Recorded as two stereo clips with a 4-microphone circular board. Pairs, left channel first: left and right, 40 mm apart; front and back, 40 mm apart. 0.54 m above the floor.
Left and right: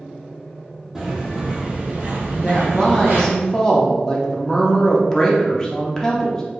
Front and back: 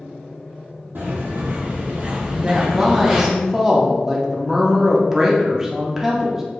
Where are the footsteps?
170° right, 1.1 m; by 3.3 s 95° right, 1.2 m.